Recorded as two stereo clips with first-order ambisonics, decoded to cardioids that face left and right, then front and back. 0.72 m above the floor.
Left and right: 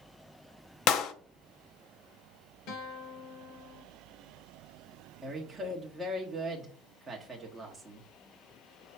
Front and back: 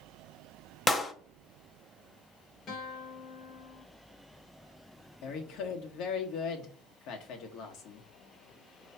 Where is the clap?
75° left, 0.6 m.